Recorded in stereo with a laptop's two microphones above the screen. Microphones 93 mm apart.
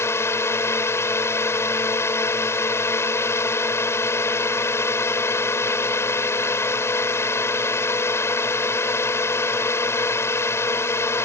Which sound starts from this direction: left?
A drone, at 0.0 s.